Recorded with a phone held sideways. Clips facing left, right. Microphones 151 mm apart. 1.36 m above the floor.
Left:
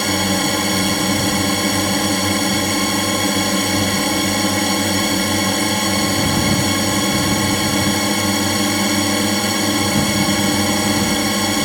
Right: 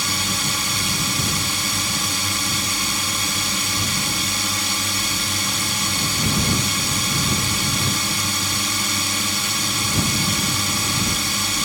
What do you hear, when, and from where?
0.0 s a drone: 65° left (ahead or behind)